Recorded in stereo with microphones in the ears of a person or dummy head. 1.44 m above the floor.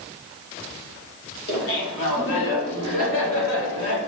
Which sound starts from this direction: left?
Laughter, at 1.5 s.